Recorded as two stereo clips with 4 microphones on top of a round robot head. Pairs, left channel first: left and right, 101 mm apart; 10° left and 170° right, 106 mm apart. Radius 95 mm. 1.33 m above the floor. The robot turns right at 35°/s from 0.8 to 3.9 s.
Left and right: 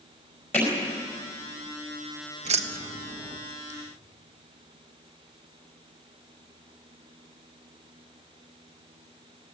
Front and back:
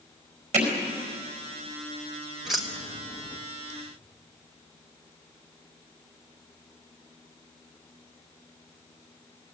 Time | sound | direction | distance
0.5 | hammering | 165° left | 4.5 m
2.5 | keys jangling | 85° right | 1.1 m